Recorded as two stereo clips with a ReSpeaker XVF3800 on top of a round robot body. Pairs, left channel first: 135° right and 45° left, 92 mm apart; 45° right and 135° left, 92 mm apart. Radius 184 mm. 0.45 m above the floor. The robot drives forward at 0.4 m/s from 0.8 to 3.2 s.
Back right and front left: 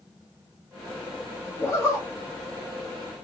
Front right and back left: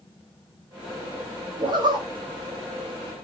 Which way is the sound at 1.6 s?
165° left.